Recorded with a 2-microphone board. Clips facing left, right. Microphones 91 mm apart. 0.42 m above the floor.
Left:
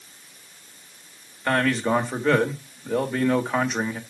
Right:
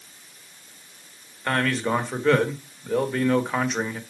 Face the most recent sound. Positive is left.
turn(degrees=5)  # may be behind; listen again after turning